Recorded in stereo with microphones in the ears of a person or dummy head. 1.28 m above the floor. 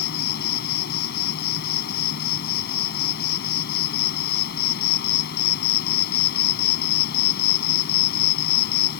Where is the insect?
55° left (ahead or behind).